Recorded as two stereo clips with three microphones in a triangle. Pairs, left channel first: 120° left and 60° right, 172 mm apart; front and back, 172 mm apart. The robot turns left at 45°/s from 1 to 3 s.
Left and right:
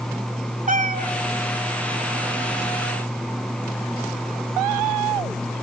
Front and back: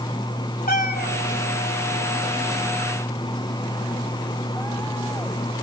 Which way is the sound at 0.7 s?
25° right.